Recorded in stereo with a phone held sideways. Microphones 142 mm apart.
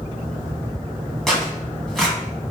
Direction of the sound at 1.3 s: 5° left (ahead or behind).